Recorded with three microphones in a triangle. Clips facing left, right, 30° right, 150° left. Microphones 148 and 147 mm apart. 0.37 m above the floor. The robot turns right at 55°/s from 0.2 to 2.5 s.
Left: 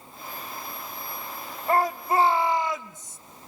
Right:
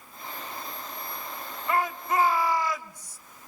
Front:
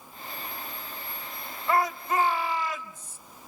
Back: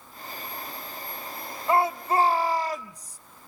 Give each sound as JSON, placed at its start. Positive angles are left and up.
{"t": 1.7, "sound": "a shout", "azimuth_deg": 100, "distance_m": 1.5}